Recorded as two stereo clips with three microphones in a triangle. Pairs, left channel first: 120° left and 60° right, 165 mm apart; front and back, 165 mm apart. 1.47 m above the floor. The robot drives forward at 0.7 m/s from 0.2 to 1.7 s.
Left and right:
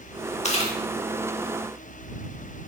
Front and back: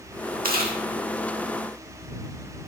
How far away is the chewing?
About 1.6 m.